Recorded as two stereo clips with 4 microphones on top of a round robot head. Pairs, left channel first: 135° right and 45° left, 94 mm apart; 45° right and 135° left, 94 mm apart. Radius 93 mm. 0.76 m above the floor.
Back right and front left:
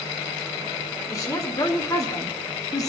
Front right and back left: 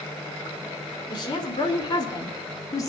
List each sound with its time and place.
1.1 s a woman speaking: 85° right, 3.5 m; by 2.9 s 90° right, 2 m